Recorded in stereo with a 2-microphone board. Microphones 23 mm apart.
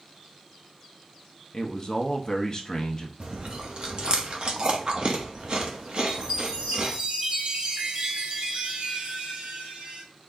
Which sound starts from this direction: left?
A man speaking, at 1.5 s.